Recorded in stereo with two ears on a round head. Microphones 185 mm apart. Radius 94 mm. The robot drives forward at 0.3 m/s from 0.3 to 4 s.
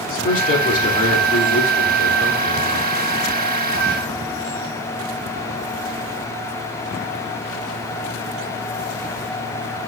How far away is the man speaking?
About 2.5 m.